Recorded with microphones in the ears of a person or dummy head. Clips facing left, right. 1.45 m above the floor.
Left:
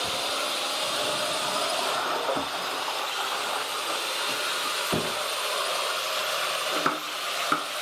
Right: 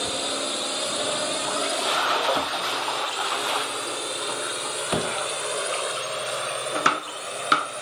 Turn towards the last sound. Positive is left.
turn(degrees=-35)  # may be behind; listen again after turning